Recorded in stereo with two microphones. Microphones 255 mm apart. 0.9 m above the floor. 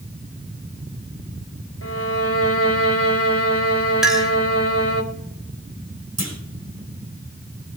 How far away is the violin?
About 1.3 m.